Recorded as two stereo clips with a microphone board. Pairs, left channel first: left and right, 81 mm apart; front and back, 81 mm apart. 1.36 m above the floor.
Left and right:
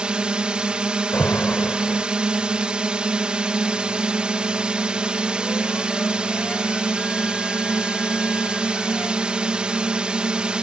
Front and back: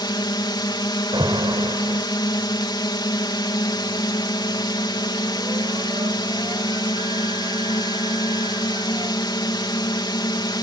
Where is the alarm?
155° left.